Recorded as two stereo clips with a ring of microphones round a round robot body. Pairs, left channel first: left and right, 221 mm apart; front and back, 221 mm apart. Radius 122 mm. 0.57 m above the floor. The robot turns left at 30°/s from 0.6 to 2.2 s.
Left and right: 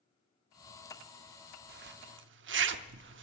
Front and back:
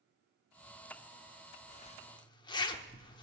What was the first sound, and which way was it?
A zipper, 55° right.